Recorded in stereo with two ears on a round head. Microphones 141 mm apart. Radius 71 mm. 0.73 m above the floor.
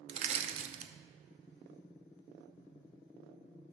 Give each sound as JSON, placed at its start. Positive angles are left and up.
{"t": 0.1, "sound": "crushing", "side_deg": -40, "distance_m": 0.7}